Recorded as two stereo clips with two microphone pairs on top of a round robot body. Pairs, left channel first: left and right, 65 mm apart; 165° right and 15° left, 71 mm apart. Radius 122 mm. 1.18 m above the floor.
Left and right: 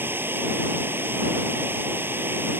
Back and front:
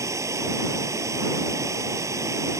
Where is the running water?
35° right.